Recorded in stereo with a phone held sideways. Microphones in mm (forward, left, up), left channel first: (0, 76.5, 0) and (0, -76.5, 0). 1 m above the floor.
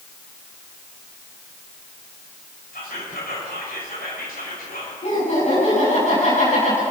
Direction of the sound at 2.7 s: 85° left.